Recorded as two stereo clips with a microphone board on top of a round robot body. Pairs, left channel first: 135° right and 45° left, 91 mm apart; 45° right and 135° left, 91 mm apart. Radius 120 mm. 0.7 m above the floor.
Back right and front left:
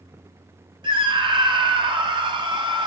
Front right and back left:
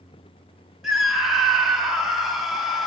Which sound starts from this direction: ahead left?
A scream, at 0.8 s.